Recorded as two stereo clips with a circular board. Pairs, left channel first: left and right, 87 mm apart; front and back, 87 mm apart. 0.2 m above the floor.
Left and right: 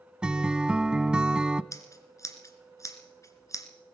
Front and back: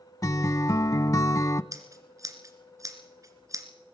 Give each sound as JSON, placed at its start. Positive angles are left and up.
{"t": 0.2, "sound": "a guitar", "azimuth_deg": -15, "distance_m": 0.6}
{"t": 1.7, "sound": "scissors", "azimuth_deg": 135, "distance_m": 2.0}